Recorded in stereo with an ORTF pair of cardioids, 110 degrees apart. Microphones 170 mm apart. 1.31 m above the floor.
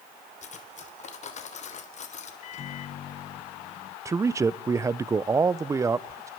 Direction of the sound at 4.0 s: 20° right.